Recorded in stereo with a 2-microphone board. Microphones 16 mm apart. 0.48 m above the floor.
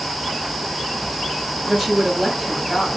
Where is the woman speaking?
20° right (ahead or behind), 3 m.